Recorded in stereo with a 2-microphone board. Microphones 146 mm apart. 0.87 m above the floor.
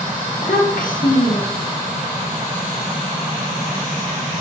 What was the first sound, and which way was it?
A child speaking, 70° left (ahead or behind).